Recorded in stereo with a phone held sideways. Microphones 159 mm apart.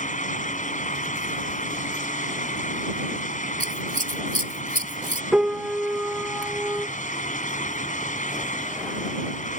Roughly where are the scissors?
Right.